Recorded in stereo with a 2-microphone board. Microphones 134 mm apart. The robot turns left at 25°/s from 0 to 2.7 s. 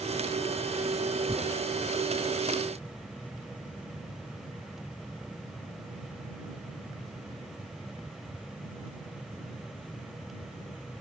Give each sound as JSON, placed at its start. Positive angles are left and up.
{"t": 1.3, "sound": "tearing paper", "side_deg": -25}